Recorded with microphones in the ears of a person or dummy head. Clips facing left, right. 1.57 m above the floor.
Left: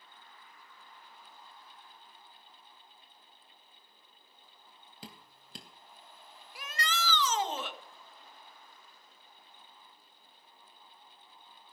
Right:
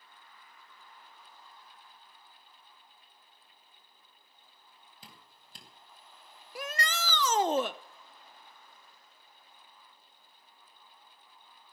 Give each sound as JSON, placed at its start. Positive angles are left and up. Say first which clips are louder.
{"t": 5.0, "sound": "dripping", "louder": "left 8 dB", "side_deg": 60, "distance_m": 3.0}
{"t": 6.5, "sound": "a shout", "louder": "right 2 dB", "side_deg": -40, "distance_m": 0.6}